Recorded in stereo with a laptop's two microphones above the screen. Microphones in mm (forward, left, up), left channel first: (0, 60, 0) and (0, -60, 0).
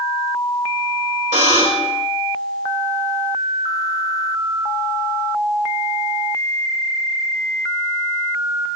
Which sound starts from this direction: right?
A buzzer, at 1.3 s.